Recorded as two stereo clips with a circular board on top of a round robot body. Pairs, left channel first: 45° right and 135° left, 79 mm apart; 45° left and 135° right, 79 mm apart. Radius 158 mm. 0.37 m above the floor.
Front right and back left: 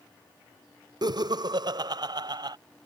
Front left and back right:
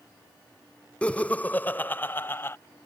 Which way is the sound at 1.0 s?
120° left.